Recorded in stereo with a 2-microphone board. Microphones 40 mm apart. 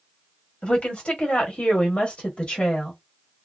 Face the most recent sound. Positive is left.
turn(degrees=25)  # may be behind; listen again after turning